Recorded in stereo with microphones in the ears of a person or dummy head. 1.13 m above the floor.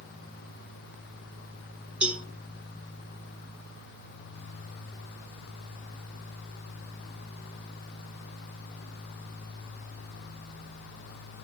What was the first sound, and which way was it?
A cowbell, 5° right (ahead or behind).